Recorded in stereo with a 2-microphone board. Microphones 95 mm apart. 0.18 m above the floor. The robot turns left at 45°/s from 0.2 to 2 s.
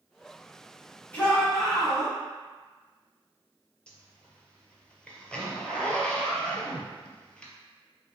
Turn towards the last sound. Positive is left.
turn(degrees=10)  # may be behind; listen again after turning